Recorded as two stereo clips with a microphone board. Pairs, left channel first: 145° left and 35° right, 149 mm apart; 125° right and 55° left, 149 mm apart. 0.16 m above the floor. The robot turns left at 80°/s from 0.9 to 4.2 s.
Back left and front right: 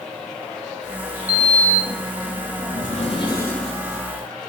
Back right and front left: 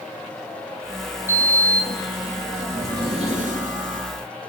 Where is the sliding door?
115° right, 1.8 m; by 4.0 s 25° left, 1.8 m.